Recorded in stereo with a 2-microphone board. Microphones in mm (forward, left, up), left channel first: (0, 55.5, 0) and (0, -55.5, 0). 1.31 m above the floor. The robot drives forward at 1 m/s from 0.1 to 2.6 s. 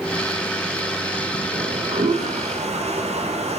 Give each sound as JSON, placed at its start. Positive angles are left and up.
{"t": 1.5, "sound": "a toilet flushing", "side_deg": -85, "distance_m": 4.0}